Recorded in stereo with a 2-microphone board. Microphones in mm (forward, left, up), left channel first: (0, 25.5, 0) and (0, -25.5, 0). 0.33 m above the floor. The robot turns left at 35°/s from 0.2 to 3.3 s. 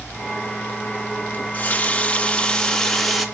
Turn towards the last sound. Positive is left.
turn(degrees=0)